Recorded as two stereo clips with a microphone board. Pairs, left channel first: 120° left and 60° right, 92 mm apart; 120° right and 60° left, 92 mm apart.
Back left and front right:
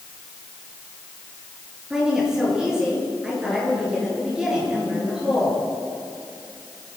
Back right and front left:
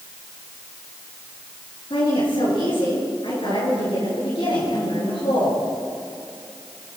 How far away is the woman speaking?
About 9.5 m.